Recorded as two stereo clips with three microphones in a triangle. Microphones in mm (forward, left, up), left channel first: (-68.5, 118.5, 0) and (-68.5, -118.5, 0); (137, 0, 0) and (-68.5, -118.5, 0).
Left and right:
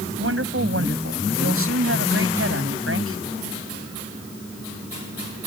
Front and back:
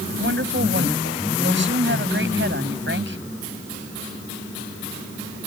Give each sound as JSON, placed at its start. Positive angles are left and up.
{"t": 0.2, "sound": "a woman speaking", "azimuth_deg": -115}